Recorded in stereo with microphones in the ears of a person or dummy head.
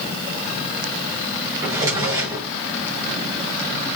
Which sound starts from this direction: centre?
A drawer, at 1.6 s.